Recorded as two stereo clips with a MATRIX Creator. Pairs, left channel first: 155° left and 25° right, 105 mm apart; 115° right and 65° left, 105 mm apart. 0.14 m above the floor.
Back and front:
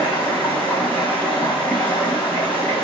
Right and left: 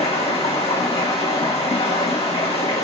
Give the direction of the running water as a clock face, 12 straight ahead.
4 o'clock.